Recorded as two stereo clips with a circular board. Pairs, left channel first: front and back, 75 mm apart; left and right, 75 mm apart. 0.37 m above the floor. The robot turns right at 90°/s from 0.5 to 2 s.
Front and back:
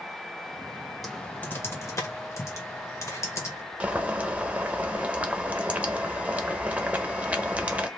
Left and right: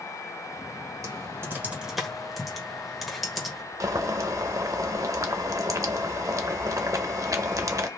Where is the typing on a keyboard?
85° right, 1.0 m; by 3.6 s straight ahead, 1.0 m.